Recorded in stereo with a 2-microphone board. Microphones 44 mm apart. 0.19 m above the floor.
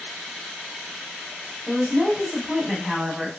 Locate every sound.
1.7 s a woman speaking: 5° right (ahead or behind), 1.0 m